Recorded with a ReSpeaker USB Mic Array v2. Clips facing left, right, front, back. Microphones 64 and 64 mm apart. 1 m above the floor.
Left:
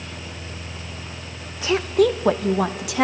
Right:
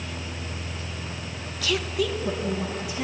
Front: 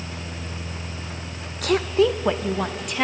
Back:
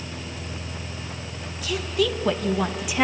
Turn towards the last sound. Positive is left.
turn(degrees=95)